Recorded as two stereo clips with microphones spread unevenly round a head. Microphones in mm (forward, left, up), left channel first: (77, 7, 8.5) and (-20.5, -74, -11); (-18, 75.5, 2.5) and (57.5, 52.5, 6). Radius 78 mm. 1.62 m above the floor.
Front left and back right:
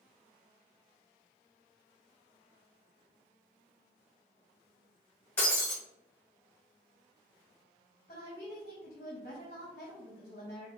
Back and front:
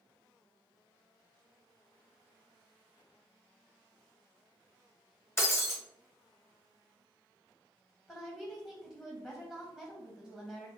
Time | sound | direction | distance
5.4 | breaking glass | 110° left | 1.2 m
8.1 | a woman speaking | 90° left | 0.9 m